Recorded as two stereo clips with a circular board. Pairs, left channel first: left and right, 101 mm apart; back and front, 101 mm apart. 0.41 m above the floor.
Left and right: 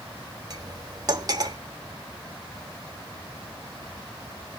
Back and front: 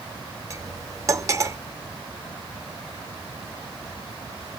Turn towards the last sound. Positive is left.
turn(degrees=-50)